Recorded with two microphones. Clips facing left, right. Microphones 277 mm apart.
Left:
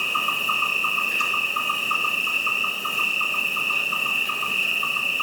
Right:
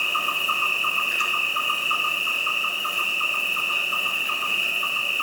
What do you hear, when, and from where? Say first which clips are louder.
0.0 s an insect: left 1 dB; 45° left (ahead or behind), 1.0 m